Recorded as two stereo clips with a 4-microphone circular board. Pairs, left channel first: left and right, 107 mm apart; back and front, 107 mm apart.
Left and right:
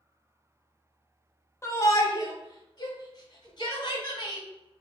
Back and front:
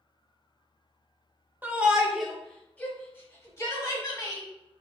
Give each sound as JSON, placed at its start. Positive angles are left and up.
{"t": 1.6, "sound": "a shout", "azimuth_deg": 55, "distance_m": 1.0}